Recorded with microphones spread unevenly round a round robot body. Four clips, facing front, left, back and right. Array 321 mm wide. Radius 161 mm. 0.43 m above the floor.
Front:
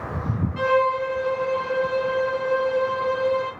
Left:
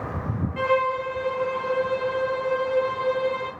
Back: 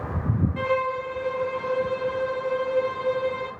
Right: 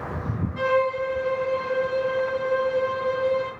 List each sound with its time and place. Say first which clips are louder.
0.6 s a violin: right 1 dB, front 8 dB; 140° left, 0.8 m